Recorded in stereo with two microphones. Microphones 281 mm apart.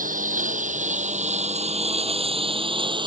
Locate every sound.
0.0 s a lawn mower: 30° right (ahead or behind); by 3.1 s 15° right (ahead or behind)